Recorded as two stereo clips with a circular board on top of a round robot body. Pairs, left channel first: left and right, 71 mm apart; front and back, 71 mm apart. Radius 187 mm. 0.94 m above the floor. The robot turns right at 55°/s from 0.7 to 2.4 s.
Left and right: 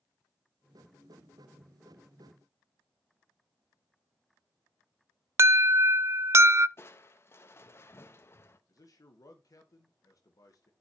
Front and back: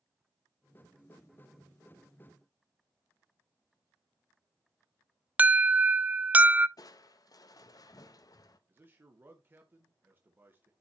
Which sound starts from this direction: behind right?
An alarm, at 5.4 s.